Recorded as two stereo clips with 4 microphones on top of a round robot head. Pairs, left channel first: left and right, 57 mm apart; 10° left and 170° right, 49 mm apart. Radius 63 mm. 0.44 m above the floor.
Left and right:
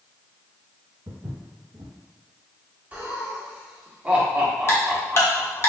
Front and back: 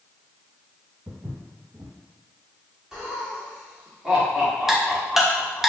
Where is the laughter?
105° right, 1.2 m.